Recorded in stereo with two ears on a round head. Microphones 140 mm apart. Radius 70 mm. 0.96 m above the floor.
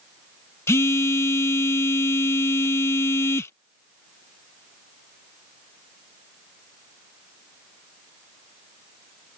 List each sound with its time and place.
0.7 s a phone buzzing: 15° left (ahead or behind)